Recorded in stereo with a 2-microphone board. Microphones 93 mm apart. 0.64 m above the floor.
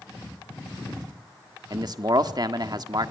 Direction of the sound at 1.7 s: 50° right (ahead or behind).